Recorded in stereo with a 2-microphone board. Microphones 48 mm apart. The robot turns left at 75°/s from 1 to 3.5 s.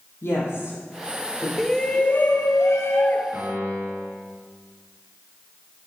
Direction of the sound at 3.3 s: 60° right (ahead or behind).